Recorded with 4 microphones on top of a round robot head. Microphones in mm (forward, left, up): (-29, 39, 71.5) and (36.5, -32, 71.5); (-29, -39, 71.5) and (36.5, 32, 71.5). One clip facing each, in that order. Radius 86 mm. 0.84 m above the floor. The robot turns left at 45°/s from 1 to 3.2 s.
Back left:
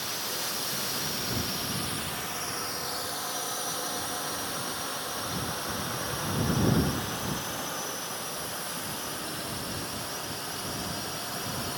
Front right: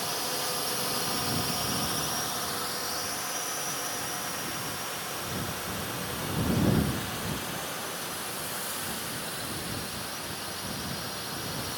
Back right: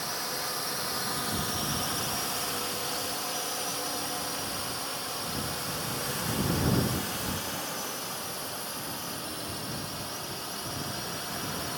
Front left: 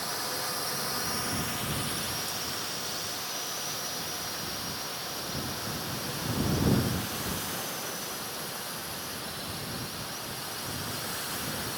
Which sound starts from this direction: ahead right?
A drone, at 0.0 s.